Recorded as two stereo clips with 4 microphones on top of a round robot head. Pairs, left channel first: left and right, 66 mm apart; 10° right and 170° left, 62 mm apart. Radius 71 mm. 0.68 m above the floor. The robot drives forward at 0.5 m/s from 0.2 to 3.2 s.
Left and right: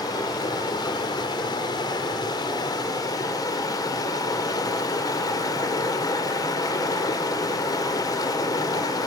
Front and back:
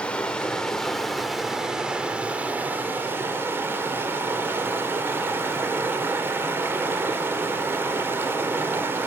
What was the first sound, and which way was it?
Running water, 60° left.